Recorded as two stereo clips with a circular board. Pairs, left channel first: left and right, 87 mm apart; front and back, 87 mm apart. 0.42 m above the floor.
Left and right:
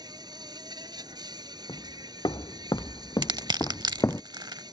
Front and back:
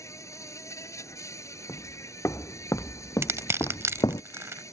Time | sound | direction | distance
0.0 | an insect | 55° right | ?
1.7 | footsteps | 60° left | ?
3.2 | crushing | 120° right | ?